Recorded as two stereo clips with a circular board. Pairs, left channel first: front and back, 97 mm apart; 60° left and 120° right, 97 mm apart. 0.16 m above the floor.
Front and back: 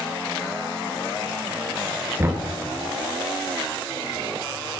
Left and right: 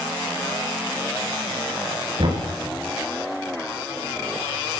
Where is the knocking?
120° right, 2 m.